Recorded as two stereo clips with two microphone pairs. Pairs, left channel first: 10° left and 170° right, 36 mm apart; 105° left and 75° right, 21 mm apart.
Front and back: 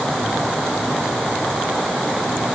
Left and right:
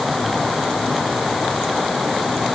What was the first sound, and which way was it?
Only background noise.